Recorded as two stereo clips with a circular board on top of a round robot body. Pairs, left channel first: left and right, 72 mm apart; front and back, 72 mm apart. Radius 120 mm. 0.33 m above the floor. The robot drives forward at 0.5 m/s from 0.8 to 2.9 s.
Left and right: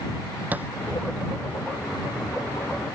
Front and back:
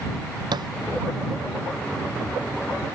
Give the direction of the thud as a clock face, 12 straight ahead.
5 o'clock.